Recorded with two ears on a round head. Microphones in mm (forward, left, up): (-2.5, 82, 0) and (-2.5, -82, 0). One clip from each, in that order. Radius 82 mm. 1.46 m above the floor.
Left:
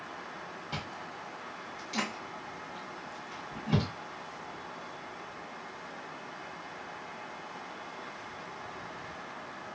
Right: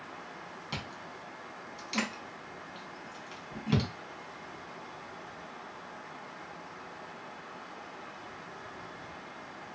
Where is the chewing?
40° right (ahead or behind), 1.6 m.